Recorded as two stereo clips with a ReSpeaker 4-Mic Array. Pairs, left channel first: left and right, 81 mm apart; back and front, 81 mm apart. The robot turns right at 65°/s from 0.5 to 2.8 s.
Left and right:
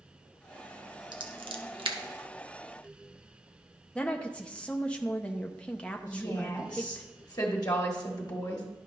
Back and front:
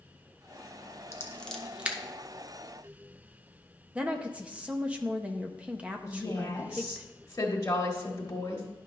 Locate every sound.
1.1 s scissors: 125° right, 0.8 m; by 2.0 s 70° right, 0.8 m
4.0 s a woman speaking: 40° left, 0.6 m
6.1 s a woman speaking: 125° left, 1.3 m